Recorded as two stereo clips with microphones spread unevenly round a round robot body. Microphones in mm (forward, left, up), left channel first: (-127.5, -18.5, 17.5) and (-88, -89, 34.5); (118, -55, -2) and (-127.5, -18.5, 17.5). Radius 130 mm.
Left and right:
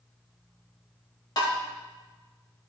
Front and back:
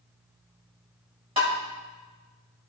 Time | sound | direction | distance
1.4 | tapping | 100° left | 1.9 m